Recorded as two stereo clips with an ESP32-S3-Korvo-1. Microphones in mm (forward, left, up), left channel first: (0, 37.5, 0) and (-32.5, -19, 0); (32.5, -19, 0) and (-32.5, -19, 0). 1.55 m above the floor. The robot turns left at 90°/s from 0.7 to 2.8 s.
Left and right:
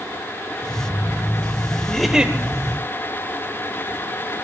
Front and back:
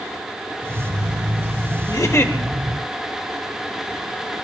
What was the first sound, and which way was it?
A giggle, 15° right.